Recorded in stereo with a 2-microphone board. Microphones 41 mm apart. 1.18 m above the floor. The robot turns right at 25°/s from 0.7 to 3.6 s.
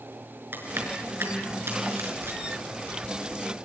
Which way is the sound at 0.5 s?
60° right (ahead or behind).